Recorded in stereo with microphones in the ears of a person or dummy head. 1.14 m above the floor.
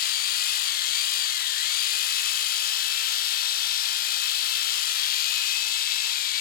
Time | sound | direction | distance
0.0 | a machine running | 55° left (ahead or behind) | 0.8 m